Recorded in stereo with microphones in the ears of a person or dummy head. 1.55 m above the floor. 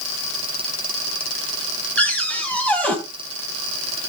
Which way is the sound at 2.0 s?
5° left (ahead or behind).